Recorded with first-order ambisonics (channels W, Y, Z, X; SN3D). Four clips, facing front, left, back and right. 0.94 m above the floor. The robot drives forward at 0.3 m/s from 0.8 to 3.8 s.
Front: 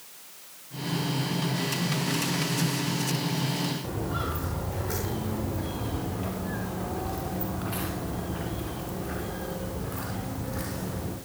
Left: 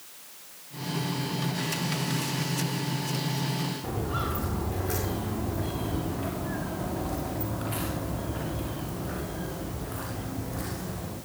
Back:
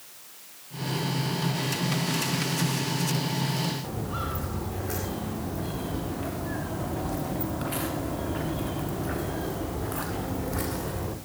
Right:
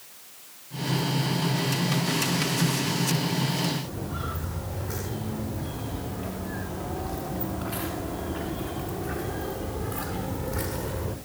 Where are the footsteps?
120° left, 8.5 m; by 11.2 s 160° right, 7.5 m.